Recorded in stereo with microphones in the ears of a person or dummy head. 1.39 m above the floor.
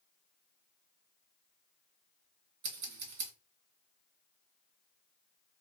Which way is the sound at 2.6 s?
70° right (ahead or behind).